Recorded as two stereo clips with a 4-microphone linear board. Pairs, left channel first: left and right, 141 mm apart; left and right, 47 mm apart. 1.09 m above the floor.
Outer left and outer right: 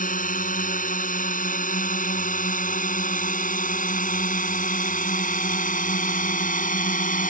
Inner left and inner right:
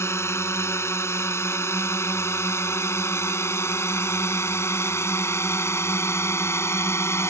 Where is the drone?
70° left (ahead or behind).